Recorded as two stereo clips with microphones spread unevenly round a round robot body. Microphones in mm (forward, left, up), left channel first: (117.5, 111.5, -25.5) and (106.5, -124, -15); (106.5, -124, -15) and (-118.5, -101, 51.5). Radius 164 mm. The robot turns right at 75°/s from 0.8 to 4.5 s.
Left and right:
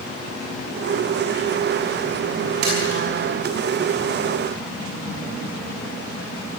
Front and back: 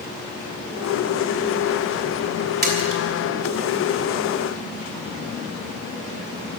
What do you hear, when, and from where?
2.6 s a splash: 140° right, 5 m; by 3.0 s 110° right, 5 m